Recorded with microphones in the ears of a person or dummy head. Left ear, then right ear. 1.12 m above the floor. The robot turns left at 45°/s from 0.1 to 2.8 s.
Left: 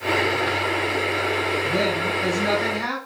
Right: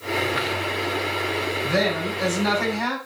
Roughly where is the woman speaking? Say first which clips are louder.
Left 1 dB; ahead right.